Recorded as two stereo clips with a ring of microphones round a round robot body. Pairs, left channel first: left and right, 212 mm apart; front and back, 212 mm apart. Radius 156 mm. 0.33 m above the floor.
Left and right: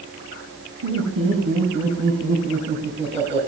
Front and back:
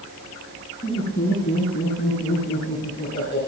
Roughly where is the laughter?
Ahead right.